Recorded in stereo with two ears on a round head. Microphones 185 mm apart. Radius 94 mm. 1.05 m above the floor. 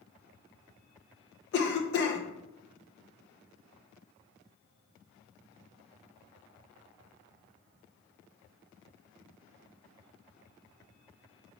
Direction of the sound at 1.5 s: 50° left (ahead or behind).